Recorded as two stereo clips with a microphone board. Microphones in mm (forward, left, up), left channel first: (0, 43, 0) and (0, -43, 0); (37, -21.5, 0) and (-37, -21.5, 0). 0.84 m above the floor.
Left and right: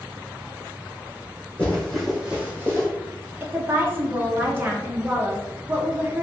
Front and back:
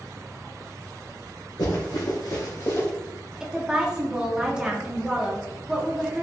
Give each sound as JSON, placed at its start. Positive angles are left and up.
{"t": 1.6, "sound": "running footsteps", "azimuth_deg": 15, "distance_m": 2.0}
{"t": 3.4, "sound": "a woman speaking", "azimuth_deg": -115, "distance_m": 0.7}